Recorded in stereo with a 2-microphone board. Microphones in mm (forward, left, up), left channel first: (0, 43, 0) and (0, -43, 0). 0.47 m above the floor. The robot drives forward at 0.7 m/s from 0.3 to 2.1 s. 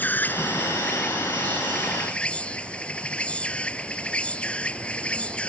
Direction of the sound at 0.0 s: 20° left (ahead or behind).